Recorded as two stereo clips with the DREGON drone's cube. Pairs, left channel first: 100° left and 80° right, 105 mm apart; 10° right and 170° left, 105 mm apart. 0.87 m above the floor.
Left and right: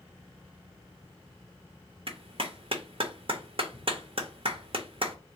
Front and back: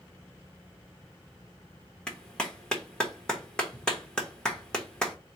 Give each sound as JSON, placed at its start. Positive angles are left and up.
{"t": 2.1, "sound": "a clap", "azimuth_deg": -90, "distance_m": 1.1}